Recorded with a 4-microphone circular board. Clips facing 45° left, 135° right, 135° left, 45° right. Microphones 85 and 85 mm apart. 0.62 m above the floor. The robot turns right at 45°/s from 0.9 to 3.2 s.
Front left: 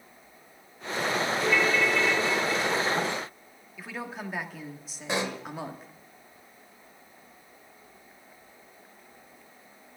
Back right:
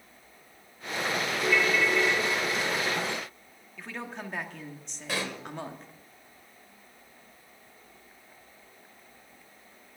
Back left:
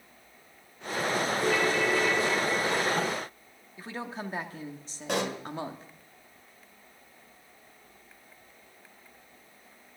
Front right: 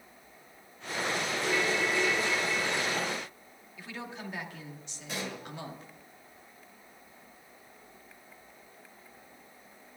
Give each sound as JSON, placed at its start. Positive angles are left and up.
{"t": 1.4, "sound": "a ringtone", "azimuth_deg": 130, "distance_m": 1.3}
{"t": 3.8, "sound": "a woman speaking", "azimuth_deg": 125, "distance_m": 1.2}
{"t": 5.1, "sound": "a pop", "azimuth_deg": 115, "distance_m": 0.9}